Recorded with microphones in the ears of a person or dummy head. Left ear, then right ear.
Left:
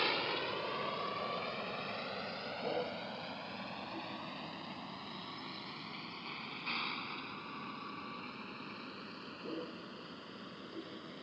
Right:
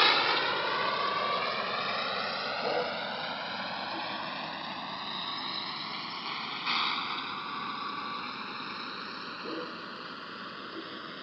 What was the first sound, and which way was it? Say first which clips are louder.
A vehicle: right 10 dB; 60° right (ahead or behind).